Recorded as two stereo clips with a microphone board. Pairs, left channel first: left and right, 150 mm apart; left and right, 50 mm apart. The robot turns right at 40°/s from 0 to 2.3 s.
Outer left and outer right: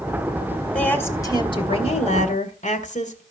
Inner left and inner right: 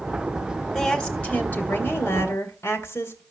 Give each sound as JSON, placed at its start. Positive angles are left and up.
{"t": 0.7, "sound": "a woman speaking", "azimuth_deg": 10, "distance_m": 2.5}